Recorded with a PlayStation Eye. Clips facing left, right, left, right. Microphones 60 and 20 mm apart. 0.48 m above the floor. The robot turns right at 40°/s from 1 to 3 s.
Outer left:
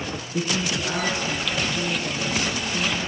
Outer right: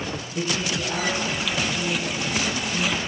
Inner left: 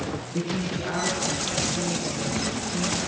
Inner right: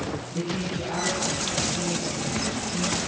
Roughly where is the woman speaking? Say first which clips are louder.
Outer left 1 dB, inner left 1 dB; behind left.